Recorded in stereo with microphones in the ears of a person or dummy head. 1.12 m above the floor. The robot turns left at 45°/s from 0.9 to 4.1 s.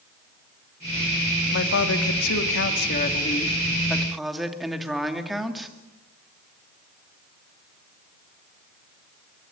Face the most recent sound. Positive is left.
turn(degrees=0)